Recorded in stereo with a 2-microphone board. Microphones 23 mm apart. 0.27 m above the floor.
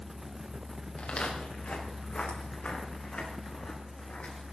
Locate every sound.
1.0 s footsteps: 60° left (ahead or behind), 5 m